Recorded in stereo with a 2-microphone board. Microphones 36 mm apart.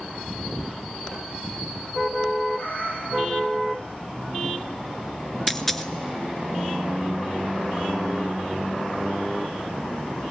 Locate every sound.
2.5 s a cat meowing: 75° left (ahead or behind), 2 m
5.5 s a dropped coin: 10° left (ahead or behind), 0.5 m